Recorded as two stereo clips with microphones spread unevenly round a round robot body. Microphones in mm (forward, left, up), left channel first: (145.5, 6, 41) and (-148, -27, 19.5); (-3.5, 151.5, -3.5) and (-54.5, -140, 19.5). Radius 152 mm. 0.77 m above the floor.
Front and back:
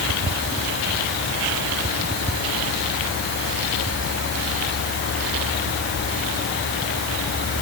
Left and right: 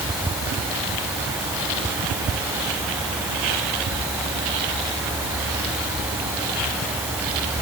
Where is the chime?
No chime in this recording.